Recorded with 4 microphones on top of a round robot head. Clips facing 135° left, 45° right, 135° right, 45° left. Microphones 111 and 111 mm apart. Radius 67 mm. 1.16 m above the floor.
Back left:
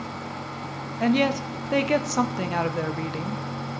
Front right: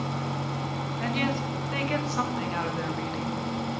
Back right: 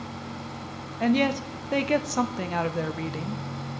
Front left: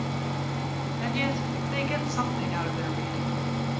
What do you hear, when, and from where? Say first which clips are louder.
1.0 s a woman speaking: back left 8 dB, back right 7 dB; straight behind, 0.8 m